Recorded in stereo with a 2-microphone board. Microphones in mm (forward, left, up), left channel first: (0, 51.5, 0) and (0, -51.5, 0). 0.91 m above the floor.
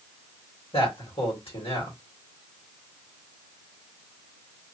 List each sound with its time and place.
0.7 s a man speaking: 60° left (ahead or behind), 1.8 m